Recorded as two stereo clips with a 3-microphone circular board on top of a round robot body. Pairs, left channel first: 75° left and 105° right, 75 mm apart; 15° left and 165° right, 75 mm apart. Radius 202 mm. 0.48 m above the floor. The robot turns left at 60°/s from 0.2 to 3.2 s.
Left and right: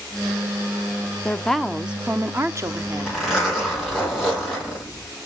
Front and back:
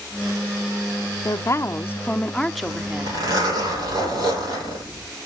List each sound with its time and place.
1.2 s a woman speaking: 5° left, 1.0 m; by 3.1 s 105° right, 1.0 m
2.6 s a zipper: 160° right, 9 m; by 5.0 s 165° left, 9 m